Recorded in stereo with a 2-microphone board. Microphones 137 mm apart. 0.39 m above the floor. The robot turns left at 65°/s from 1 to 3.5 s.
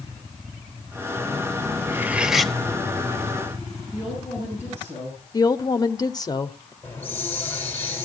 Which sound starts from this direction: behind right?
Cutlery clinking, at 1.9 s.